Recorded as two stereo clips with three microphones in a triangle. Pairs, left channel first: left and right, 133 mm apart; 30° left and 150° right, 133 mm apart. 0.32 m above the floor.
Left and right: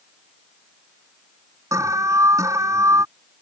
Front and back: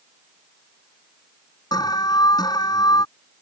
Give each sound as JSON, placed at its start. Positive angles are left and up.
{"t": 1.7, "sound": "an alarm", "azimuth_deg": -25}